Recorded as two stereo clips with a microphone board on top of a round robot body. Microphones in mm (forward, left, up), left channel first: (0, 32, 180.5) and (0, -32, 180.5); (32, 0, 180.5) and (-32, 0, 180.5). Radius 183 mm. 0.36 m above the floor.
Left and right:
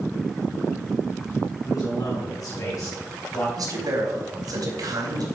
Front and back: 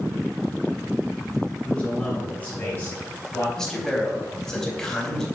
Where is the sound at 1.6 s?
70° left, 5 m; by 3.5 s 50° left, 4 m.